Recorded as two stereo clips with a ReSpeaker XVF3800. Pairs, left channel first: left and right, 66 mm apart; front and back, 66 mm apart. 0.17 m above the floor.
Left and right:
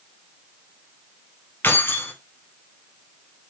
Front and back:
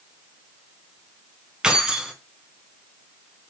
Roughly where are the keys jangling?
Left.